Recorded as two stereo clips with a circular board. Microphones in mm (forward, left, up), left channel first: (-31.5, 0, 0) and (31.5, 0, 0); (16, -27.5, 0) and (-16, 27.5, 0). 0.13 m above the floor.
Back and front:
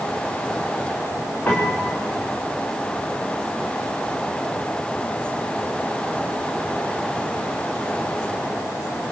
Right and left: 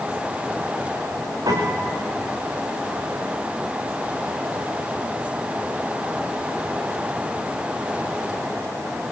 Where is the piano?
115° left, 9 m.